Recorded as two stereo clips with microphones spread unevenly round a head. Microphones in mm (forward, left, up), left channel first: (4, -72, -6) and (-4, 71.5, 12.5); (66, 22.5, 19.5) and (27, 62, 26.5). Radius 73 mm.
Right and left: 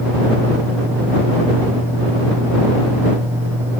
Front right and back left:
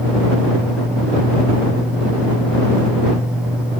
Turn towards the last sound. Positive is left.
No sound to turn to.